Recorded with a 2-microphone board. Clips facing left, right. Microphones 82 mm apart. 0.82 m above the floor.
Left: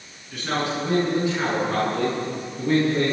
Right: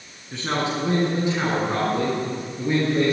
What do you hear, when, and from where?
0.3 s a man speaking: 25° right (ahead or behind), 8.5 m; by 3.1 s 5° right (ahead or behind), 10 m